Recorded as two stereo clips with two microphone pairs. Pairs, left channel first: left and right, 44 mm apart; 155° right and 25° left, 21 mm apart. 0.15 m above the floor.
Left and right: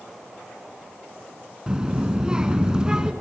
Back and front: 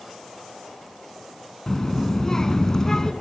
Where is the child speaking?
130° right, 1.1 m.